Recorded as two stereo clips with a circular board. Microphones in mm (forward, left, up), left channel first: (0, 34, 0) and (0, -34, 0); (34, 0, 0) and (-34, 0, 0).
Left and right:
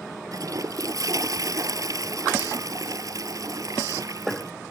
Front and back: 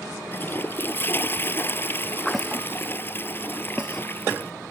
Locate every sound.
0.3 s a toilet flushing: 60° right